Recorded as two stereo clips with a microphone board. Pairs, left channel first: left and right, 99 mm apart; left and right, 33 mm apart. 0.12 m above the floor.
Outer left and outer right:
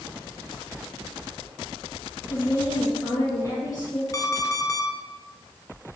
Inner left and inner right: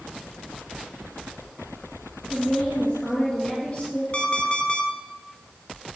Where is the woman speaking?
40° left (ahead or behind), 2 m.